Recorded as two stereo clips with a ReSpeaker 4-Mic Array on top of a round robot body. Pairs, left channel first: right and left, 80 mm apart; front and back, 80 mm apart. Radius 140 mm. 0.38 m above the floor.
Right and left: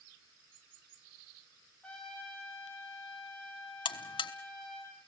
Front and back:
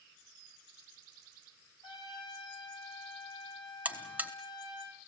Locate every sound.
1.8 s a trumpet: 15° right, 6.5 m
3.9 s a buzzer: 110° right, 0.8 m